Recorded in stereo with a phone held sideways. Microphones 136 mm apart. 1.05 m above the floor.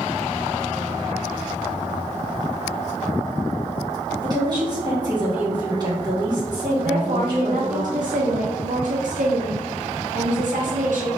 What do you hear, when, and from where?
4.2 s a woman speaking: 30° right (ahead or behind), 1.7 m
6.8 s a woman speaking: 70° right (ahead or behind), 0.7 m